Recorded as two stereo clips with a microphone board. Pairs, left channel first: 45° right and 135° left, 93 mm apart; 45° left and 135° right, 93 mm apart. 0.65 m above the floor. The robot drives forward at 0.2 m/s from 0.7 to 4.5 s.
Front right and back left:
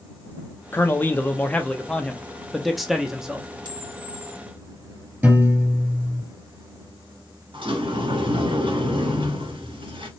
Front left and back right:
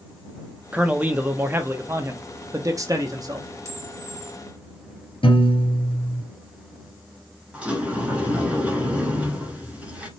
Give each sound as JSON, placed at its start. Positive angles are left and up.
{"t": 0.7, "sound": "a man speaking", "azimuth_deg": -75, "distance_m": 0.7}
{"t": 3.6, "sound": "a camera shutter", "azimuth_deg": 170, "distance_m": 2.0}
{"t": 5.2, "sound": "a piano", "azimuth_deg": 70, "distance_m": 2.0}
{"t": 7.5, "sound": "a sliding door", "azimuth_deg": 150, "distance_m": 1.3}